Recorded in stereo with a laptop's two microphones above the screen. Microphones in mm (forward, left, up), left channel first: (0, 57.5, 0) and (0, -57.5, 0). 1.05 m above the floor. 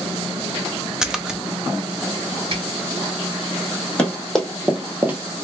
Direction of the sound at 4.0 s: 10° left (ahead or behind).